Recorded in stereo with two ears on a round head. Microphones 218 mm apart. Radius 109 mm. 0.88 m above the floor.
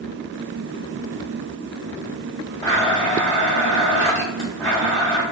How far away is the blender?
About 1.6 m.